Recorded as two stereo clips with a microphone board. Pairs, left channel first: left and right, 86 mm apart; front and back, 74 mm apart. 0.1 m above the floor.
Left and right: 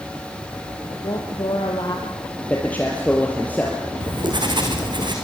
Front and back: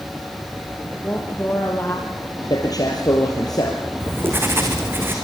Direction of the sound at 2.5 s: 20° left.